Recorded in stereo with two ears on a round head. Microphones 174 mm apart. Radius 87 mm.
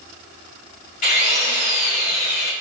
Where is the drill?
45° left (ahead or behind), 2.5 m.